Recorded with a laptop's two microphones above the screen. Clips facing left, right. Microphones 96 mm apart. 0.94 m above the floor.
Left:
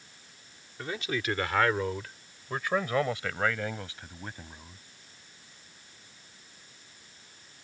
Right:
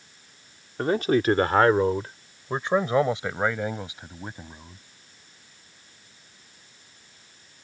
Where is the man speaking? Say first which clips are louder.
Right 12 dB; 50° right (ahead or behind); by 4.8 s 15° right (ahead or behind).